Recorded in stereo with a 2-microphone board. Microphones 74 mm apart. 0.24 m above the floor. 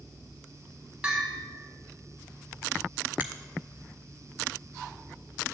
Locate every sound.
1.0 s a bell: 15° right (ahead or behind), 2 m
3.2 s a finger snap: 25° right (ahead or behind), 1.2 m